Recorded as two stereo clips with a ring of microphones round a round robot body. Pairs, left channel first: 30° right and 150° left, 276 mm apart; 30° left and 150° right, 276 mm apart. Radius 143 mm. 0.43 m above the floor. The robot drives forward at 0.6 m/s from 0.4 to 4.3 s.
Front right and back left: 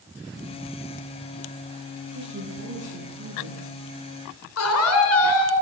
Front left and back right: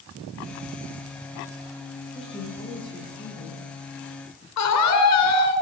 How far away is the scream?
About 7.5 m.